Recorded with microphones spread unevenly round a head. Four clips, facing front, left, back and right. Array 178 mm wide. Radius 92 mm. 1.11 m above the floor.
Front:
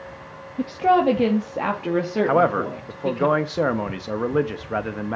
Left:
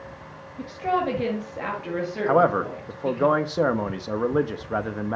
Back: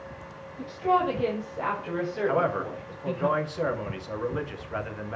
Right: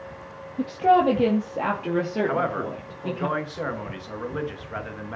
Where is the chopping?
No chopping in this recording.